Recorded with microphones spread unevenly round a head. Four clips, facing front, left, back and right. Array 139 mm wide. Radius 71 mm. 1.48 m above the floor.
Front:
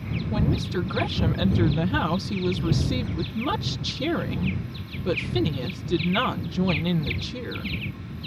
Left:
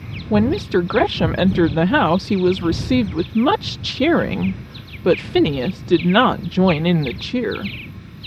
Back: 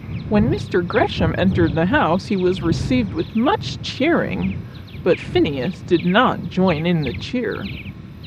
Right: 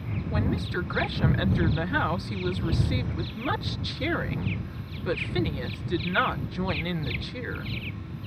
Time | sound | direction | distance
0.3 | a woman speaking | 125° left | ?